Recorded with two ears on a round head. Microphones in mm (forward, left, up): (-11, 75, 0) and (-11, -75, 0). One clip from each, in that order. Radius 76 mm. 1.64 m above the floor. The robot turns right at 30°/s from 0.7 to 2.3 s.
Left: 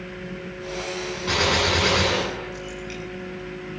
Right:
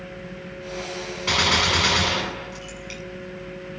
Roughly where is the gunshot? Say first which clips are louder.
Right 2 dB; ahead right.